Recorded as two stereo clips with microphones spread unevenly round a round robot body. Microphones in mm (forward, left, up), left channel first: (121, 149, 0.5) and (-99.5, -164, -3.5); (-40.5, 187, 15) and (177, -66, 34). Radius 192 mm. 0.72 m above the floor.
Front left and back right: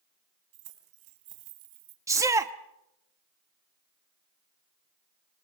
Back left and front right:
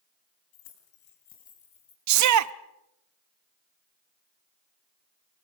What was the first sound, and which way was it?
Keys jangling, 170° right.